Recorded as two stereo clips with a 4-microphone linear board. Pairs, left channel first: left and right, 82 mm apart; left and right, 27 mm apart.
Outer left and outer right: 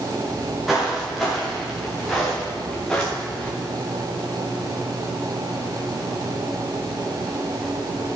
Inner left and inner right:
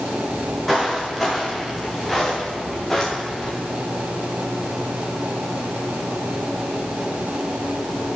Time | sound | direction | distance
0.3 | footsteps | 5° right (ahead or behind) | 6.5 m